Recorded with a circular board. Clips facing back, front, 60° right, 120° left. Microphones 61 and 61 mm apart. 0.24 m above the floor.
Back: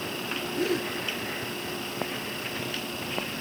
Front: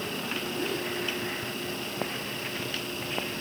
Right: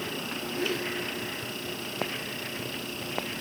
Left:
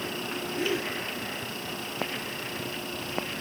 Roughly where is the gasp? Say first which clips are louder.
Back 6 dB, left 1 dB; behind.